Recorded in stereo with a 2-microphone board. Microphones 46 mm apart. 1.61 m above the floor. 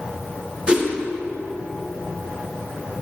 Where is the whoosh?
20° right (ahead or behind), 1.3 m.